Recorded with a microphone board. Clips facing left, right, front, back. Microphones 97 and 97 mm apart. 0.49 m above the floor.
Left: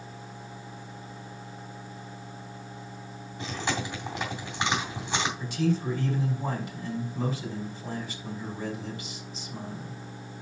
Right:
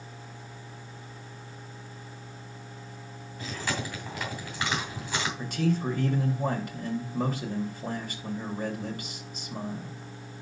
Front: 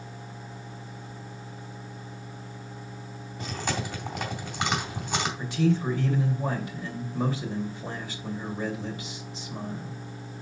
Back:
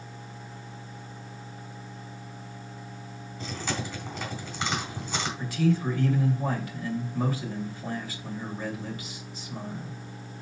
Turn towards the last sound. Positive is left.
turn(degrees=-65)